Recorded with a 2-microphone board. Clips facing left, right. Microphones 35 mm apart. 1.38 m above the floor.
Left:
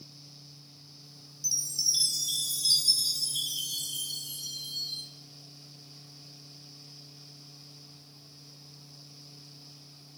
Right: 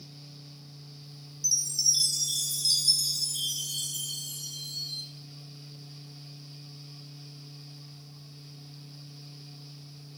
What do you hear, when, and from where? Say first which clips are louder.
1.4 s a chime: right 3 dB; 20° left (ahead or behind), 0.5 m